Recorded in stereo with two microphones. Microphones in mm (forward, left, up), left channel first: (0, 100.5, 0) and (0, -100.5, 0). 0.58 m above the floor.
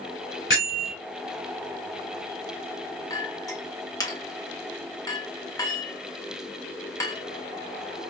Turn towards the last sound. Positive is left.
turn(degrees=15)  # may be behind; listen again after turning